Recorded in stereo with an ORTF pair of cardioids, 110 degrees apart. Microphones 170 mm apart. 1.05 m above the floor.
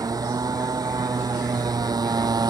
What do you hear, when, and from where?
0.0 s a motorcycle: 20° right; by 2.5 s 25° right